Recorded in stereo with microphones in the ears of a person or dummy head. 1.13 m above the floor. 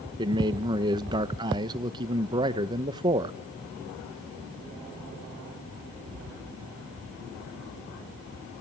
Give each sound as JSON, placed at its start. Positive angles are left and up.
{"t": 0.2, "sound": "a man speaking", "side_deg": -20, "distance_m": 0.9}